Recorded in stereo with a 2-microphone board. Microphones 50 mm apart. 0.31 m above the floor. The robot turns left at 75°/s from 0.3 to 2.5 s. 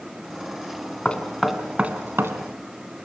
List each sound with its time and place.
1.1 s knocking: 25° left (ahead or behind), 2 m; by 2.4 s 65° right (ahead or behind), 2 m